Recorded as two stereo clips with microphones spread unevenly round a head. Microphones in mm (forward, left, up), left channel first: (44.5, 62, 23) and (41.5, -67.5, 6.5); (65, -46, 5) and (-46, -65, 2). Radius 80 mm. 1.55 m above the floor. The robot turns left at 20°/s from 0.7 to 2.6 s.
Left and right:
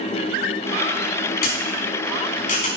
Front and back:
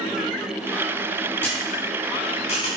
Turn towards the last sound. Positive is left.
turn(degrees=65)